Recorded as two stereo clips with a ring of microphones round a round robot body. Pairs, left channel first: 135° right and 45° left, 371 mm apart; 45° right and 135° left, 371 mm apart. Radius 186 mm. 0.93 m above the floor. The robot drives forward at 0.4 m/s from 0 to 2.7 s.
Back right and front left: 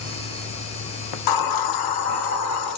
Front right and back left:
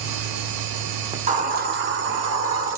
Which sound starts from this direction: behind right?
A hiss, at 1.1 s.